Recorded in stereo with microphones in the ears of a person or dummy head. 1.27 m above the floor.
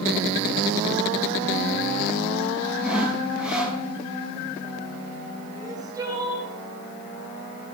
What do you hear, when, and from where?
2.8 s sawing: 5° right (ahead or behind), 5.5 m
5.5 s crying: 25° right (ahead or behind), 3.5 m